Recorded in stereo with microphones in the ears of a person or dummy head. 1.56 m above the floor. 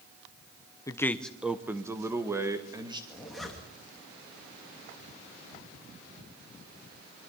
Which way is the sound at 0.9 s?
15° left (ahead or behind).